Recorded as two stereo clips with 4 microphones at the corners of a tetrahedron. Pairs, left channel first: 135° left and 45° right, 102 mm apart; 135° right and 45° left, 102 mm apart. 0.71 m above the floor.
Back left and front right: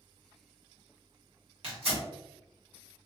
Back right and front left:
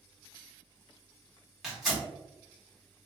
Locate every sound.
1.6 s tearing paper: 45° right, 1.6 m